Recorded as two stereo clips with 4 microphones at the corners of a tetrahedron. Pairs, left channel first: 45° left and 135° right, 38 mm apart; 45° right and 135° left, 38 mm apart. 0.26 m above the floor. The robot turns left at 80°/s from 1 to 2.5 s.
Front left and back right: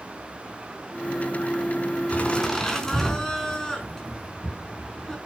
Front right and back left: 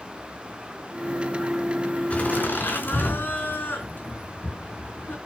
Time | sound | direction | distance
2.1 | laughter | straight ahead | 4 m